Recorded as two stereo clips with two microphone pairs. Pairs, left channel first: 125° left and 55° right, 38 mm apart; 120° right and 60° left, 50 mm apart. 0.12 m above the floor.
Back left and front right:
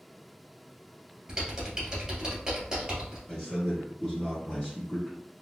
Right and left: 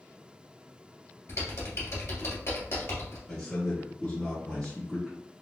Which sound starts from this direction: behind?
A man speaking, at 3.3 s.